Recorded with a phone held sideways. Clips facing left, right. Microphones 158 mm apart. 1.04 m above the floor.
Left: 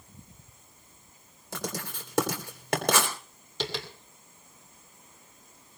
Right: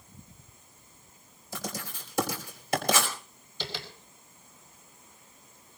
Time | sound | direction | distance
1.5 | writing | 75° left (ahead or behind) | 3.5 m
3.6 | tapping | 80° left | 2.5 m